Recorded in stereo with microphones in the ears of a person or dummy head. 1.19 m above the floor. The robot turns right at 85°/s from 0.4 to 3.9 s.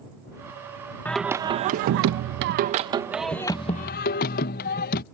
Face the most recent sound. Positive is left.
turn(degrees=55)